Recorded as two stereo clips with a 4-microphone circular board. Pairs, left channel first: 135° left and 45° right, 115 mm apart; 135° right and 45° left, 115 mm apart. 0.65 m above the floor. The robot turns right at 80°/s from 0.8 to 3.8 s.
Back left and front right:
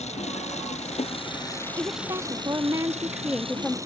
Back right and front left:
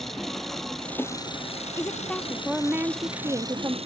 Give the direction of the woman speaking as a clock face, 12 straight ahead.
3 o'clock.